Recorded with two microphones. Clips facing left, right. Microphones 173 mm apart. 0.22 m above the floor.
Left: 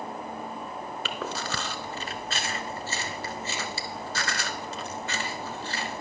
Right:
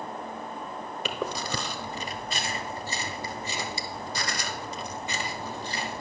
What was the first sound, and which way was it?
Chewing, 15° right (ahead or behind).